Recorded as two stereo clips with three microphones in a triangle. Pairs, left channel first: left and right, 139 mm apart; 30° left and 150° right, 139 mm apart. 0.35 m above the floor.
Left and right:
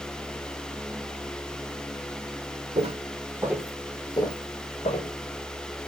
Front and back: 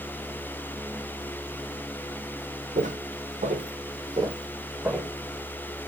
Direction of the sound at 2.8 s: 130° right.